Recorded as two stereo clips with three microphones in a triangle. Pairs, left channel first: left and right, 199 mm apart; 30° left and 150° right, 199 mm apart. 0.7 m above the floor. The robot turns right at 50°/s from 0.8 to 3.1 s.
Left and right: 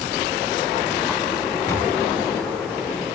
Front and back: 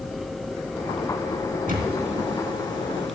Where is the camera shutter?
165° left, 3 m; by 3.1 s 125° right, 3 m.